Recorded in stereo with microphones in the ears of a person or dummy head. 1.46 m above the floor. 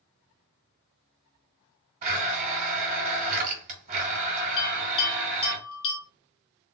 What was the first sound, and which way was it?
A blender, 45° right (ahead or behind).